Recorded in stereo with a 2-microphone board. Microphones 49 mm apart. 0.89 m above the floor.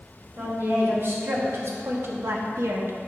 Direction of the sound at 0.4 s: 50° right (ahead or behind).